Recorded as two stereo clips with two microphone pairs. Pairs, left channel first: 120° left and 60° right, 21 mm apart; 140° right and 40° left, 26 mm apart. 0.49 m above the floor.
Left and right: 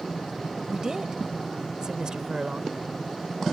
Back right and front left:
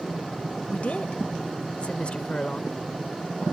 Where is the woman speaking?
125° right; by 3.5 s 80° right.